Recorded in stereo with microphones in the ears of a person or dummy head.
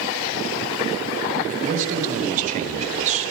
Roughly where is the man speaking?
Right.